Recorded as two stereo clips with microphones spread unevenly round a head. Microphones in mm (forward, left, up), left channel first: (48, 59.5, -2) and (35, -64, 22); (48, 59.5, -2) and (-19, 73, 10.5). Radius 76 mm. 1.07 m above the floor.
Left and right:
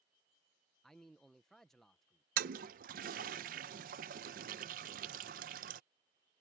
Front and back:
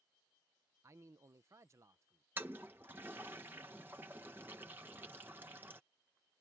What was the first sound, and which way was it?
A man speaking, 150° left.